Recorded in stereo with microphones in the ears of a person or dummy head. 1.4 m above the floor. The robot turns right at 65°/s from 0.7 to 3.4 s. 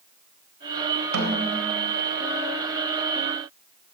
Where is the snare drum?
85° right, 3.5 m; by 1.9 s 30° right, 3.5 m.